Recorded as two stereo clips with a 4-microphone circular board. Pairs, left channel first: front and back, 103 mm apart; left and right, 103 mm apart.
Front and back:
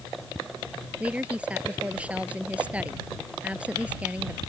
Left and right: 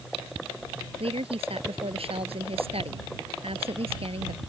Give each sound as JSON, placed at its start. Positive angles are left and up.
{"t": 1.0, "sound": "a woman speaking", "azimuth_deg": -105}